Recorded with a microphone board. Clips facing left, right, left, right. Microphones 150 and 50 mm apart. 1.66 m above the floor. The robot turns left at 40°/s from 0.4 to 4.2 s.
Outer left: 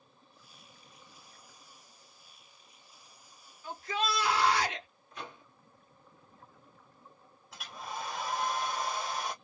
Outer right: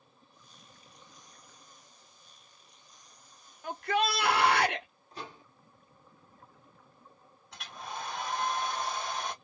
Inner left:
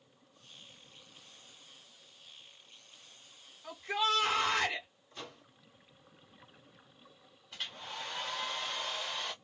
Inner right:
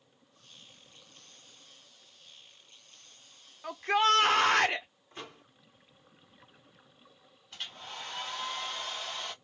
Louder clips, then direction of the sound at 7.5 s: Even, even; 5° left (ahead or behind).